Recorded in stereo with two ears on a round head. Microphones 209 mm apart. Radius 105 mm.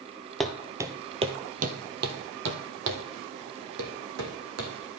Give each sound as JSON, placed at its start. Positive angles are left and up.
{"t": 0.4, "sound": "footsteps", "side_deg": 0, "distance_m": 0.8}